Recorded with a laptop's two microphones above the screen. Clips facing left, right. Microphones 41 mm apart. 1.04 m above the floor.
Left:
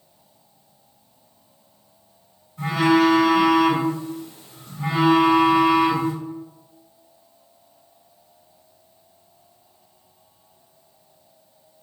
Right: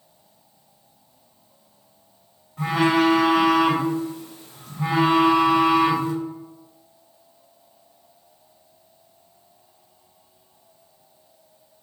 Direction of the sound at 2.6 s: 90° right.